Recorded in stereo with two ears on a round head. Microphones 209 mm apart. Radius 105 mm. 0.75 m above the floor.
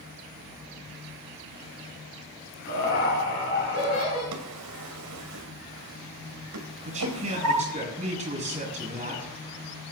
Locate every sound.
2.6 s laughter: 40° left (ahead or behind), 6.5 m; by 4.2 s 30° left (ahead or behind), 7 m
4.3 s a drawer: 80° right, 2 m
6.8 s a man speaking: 30° right (ahead or behind), 6.5 m